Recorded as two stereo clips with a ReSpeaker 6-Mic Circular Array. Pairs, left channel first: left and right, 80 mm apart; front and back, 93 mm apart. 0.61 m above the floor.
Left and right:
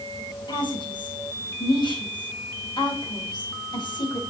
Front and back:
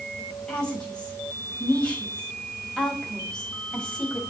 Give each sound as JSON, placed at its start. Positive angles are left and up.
{"t": 0.5, "sound": "a woman speaking", "azimuth_deg": 80, "distance_m": 4.5}